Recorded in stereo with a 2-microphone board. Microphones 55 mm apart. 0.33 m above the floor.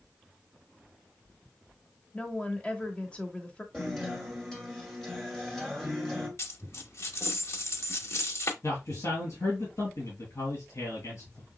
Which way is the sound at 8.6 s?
65° left (ahead or behind).